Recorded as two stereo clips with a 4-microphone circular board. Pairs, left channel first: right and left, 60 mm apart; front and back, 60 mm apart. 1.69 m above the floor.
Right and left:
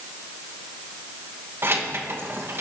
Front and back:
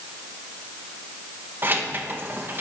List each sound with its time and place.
1.6 s keys jangling: 130° left, 1.3 m